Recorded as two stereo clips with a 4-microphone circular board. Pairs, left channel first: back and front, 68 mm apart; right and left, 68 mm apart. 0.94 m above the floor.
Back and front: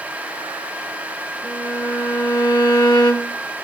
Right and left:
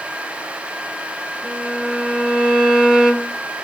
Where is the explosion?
I don't hear an explosion.